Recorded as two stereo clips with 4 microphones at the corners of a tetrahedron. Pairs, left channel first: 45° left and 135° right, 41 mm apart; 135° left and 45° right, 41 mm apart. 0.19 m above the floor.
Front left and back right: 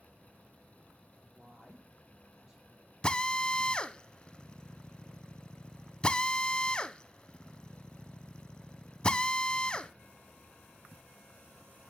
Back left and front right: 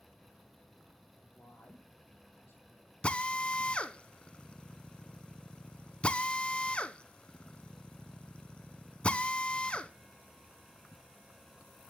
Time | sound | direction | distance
1.1 | a woman speaking | 150° left | 5.5 m
3.0 | a drill | 95° left | 0.6 m